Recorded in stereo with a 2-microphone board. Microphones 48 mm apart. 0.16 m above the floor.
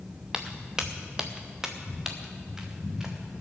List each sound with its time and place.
0.3 s footsteps: 15° right (ahead or behind), 1.1 m; by 3.4 s 10° right (ahead or behind), 2.5 m